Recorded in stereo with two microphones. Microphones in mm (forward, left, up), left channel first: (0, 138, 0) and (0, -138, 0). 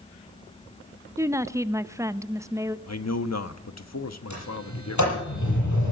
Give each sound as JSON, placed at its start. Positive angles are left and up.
{"t": 1.2, "sound": "a woman speaking", "side_deg": -10, "distance_m": 0.5}
{"t": 2.9, "sound": "a man speaking", "side_deg": 70, "distance_m": 1.1}
{"t": 4.3, "sound": "a sliding door", "side_deg": 85, "distance_m": 9.0}